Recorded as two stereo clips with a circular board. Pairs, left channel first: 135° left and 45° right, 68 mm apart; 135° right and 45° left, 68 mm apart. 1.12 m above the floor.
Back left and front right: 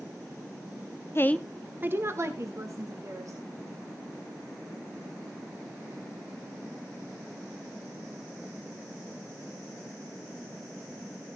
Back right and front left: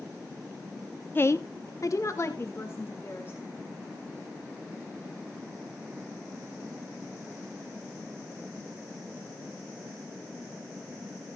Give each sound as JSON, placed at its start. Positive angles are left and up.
{"t": 1.1, "sound": "a woman speaking", "azimuth_deg": 175, "distance_m": 0.7}